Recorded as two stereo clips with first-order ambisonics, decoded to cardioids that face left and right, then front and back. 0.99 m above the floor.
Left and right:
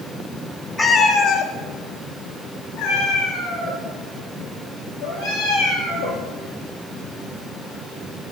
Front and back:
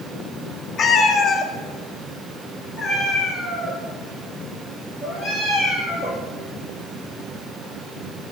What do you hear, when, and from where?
0.8 s a cat meowing: 25° left, 0.8 m; by 6.2 s 80° left, 6.5 m